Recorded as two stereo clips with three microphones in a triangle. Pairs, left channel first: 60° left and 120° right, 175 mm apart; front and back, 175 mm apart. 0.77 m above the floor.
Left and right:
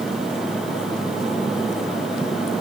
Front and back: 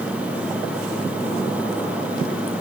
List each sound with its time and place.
Only background noise.